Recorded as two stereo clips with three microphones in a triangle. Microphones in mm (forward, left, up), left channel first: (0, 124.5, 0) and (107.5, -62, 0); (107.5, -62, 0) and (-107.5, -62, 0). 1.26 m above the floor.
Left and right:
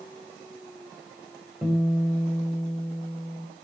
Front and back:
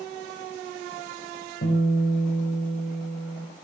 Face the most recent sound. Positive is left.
turn(degrees=25)